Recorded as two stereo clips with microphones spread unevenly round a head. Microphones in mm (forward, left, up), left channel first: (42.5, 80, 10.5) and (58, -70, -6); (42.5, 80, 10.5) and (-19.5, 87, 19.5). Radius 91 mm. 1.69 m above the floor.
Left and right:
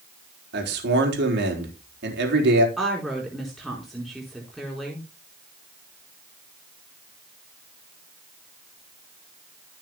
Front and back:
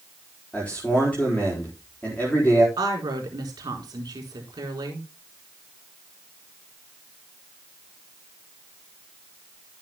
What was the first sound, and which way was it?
A man speaking, 90° right.